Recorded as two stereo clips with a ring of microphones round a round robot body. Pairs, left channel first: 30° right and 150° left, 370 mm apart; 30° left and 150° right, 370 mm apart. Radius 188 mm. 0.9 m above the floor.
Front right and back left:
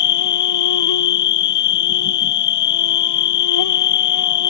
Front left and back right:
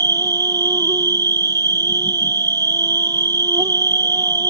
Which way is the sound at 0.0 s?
70° right.